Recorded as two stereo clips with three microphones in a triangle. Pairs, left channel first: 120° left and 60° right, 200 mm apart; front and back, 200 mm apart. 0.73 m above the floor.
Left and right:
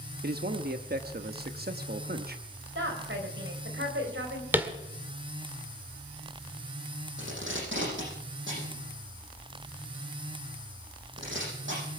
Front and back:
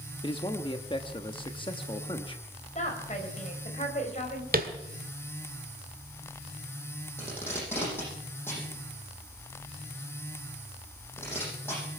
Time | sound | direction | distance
0.2 | a man speaking | 55° right | 0.9 m
2.8 | a woman speaking | 50° right | 4 m
4.5 | tapping | 140° right | 1.6 m
7.2 | tape being pulled | 80° right | 9.5 m